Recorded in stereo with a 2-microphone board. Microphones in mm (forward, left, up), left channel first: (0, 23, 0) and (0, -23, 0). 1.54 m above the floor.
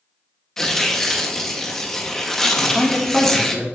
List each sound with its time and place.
0.6 s tearing paper: 10° left (ahead or behind), 0.9 m
2.5 s a man speaking: centre (ahead or behind), 1.9 m